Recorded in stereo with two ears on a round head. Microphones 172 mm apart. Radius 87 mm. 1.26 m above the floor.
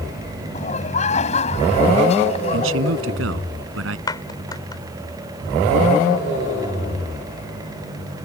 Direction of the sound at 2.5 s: 80° right.